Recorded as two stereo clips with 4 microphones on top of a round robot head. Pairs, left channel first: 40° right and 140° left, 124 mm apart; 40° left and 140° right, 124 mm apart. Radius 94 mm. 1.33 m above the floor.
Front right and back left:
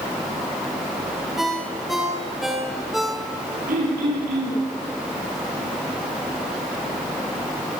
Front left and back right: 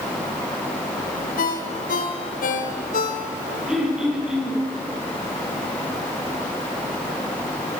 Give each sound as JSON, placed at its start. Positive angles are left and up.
{"t": 1.4, "sound": "a ringtone", "azimuth_deg": 50, "distance_m": 4.0}
{"t": 3.7, "sound": "throat clearing", "azimuth_deg": 140, "distance_m": 9.5}